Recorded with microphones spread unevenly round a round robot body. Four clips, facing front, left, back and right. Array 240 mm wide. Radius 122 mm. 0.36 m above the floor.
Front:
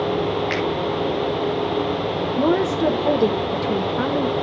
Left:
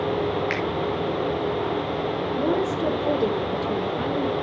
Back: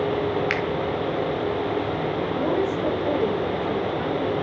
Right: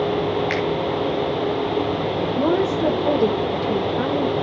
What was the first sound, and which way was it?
A finger snap, 170° left.